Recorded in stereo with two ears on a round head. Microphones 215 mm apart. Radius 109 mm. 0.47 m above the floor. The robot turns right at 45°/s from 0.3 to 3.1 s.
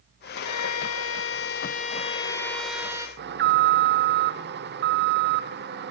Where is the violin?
75° left, 1.2 m; by 3.1 s 160° right, 1.2 m.